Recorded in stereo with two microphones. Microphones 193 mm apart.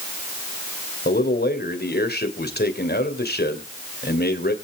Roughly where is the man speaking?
Left.